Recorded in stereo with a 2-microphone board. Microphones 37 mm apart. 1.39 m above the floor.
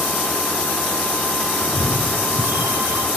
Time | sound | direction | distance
1.6 | a cat meowing | 60° right (ahead or behind) | 3 m